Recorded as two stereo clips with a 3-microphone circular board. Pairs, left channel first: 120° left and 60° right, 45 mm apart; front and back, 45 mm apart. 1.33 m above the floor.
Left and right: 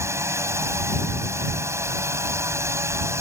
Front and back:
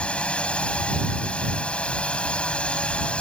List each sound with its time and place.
0.0 s a drone: 65° right